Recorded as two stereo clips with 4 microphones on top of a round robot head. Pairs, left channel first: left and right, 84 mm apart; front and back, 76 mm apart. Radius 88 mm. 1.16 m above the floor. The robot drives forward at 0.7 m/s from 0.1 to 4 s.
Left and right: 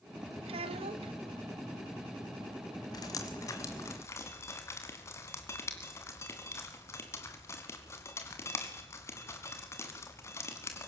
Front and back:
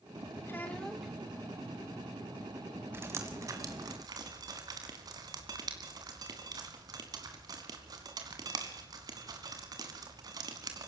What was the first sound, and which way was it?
A child speaking, 70° right.